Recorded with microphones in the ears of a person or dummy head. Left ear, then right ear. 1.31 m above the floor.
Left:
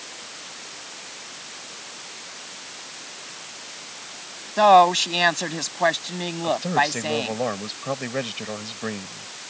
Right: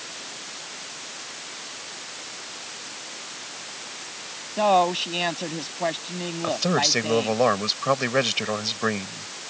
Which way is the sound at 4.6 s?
55° left (ahead or behind).